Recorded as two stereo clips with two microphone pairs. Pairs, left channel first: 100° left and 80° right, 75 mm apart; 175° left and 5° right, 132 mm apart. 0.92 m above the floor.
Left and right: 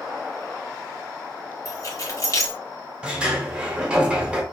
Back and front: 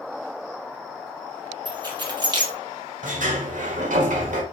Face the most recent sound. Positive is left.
turn(degrees=-5)